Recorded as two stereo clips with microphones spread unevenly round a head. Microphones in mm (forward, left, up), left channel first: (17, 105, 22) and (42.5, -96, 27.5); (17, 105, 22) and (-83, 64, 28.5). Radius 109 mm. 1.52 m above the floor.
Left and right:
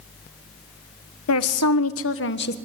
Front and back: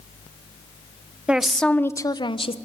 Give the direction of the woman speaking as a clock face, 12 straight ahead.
8 o'clock.